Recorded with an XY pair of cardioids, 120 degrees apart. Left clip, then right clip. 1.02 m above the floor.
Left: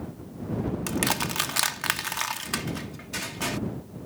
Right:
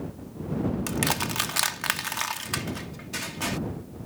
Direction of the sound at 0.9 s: 5° left.